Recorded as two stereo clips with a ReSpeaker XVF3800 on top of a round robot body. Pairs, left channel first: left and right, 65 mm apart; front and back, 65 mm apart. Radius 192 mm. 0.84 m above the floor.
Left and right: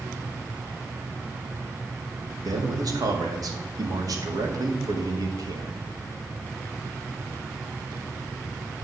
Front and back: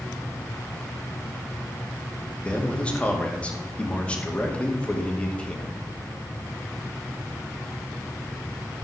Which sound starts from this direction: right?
A man speaking, at 2.5 s.